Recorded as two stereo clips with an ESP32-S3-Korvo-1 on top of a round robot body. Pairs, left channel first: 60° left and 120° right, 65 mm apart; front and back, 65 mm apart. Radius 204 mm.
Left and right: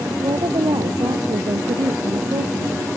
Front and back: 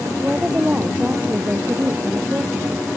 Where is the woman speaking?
110° right; by 2.9 s 120° right.